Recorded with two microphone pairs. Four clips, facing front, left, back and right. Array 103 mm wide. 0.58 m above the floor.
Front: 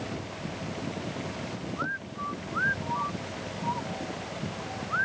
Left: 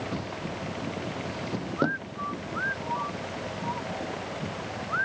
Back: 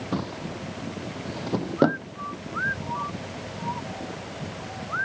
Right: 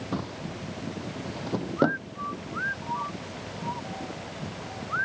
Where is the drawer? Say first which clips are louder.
Even, back 6 dB; 155° right.